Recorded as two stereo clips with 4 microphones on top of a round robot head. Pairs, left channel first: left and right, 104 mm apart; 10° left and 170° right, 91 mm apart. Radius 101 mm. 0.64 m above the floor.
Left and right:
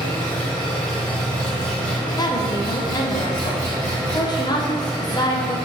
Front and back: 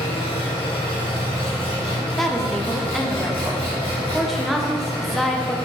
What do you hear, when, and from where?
0.0 s an engine running: 5° left, 1.6 m
2.2 s a woman speaking: 95° left, 0.8 m